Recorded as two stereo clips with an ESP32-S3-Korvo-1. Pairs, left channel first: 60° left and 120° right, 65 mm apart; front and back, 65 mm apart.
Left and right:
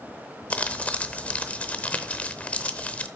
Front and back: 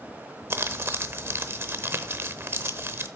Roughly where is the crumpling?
Behind left.